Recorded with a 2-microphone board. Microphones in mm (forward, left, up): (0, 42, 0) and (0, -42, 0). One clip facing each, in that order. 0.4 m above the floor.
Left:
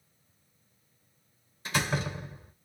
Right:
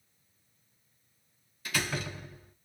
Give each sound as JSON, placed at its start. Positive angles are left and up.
{"t": 1.6, "sound": "a door slam", "side_deg": 25, "distance_m": 3.0}